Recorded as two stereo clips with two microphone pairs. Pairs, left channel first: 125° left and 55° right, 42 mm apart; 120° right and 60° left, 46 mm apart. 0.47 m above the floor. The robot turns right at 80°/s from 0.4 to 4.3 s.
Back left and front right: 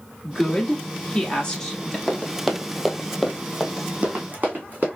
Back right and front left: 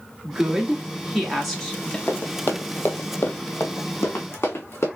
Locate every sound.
0.2 s a woman speaking: 70° left, 1.1 m; by 2.0 s 165° right, 1.1 m
2.1 s running footsteps: 160° right, 1.3 m; by 4.9 s 110° right, 2.5 m